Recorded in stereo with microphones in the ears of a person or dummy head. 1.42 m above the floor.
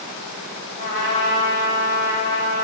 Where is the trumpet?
45° left (ahead or behind), 1.1 m.